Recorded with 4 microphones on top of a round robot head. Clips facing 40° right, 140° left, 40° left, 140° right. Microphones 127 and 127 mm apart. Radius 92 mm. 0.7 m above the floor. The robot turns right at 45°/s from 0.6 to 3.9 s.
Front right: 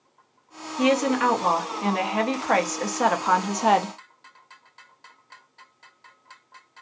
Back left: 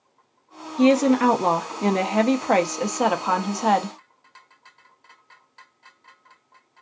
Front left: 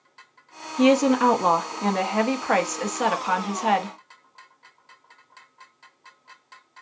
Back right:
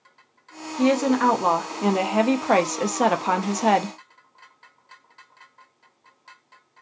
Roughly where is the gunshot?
No gunshot in this recording.